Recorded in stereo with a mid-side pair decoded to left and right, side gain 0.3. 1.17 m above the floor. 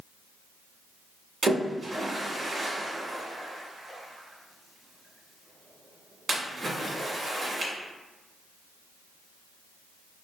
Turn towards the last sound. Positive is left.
turn(degrees=-70)